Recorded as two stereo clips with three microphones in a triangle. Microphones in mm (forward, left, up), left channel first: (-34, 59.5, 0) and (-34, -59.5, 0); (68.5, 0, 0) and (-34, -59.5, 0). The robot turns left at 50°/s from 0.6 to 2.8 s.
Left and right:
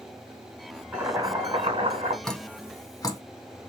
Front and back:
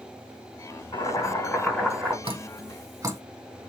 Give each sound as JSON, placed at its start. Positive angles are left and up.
{"t": 0.9, "sound": "boiling", "azimuth_deg": -15, "distance_m": 2.0}
{"t": 2.2, "sound": "dripping", "azimuth_deg": 180, "distance_m": 0.8}